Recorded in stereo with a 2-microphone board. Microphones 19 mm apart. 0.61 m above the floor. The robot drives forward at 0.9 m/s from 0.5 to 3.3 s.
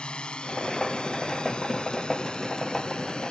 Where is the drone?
60° left (ahead or behind); by 3.3 s 50° left (ahead or behind).